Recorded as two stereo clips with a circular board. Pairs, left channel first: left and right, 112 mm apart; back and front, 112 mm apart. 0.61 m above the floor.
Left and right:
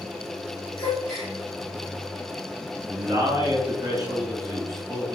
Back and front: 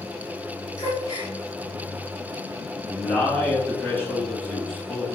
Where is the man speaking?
120° right, 0.8 m.